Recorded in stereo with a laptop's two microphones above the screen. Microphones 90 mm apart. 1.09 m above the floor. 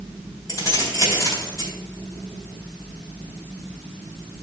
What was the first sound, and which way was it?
Keys jangling, 40° left (ahead or behind).